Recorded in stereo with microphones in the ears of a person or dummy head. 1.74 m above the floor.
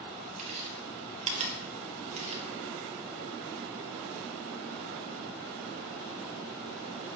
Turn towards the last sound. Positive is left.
turn(degrees=-35)  # may be behind; listen again after turning